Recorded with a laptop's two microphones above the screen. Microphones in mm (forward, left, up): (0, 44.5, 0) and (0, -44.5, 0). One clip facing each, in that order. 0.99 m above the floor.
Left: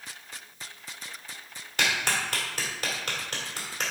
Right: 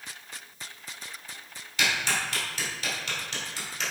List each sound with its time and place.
1.8 s a clap: 50° left (ahead or behind), 2.5 m